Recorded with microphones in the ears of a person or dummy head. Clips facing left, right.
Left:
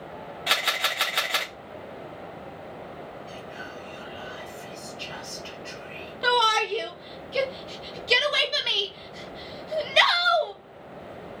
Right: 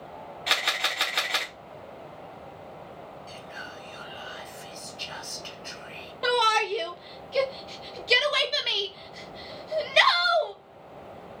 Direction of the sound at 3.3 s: 65° right (ahead or behind).